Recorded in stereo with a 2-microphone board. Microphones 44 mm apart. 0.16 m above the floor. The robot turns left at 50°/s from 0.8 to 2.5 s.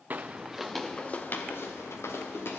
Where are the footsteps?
40° right (ahead or behind), 0.6 m; by 2.6 s 60° left (ahead or behind), 2 m.